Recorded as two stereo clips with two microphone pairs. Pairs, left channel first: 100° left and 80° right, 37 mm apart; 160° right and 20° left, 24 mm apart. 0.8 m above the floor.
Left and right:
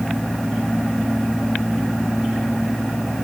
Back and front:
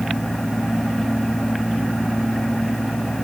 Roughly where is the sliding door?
I don't hear a sliding door.